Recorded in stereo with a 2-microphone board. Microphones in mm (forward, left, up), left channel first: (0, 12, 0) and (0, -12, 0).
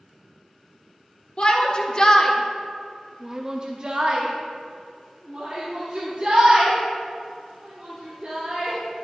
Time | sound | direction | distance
1.4 | a shout | 45° left (ahead or behind) | 1.2 m